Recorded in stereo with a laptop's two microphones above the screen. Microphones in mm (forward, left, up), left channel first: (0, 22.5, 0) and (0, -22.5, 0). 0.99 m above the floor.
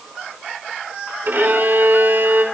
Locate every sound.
1.2 s a violin: 55° right (ahead or behind), 3.5 m